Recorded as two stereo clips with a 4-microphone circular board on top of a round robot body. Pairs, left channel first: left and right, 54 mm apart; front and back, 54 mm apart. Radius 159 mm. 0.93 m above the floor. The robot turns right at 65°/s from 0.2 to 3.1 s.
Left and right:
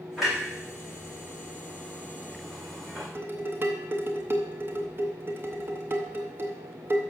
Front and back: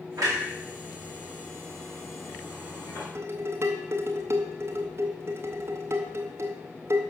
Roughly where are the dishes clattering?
Behind right.